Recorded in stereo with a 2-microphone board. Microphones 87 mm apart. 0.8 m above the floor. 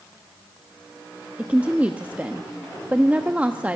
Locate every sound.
1.4 s a woman speaking: 15° right (ahead or behind), 1.0 m